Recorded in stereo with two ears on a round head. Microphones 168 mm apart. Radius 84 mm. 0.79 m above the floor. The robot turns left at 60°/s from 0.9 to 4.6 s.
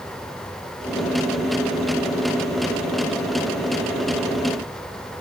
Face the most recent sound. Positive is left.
No sound to turn to.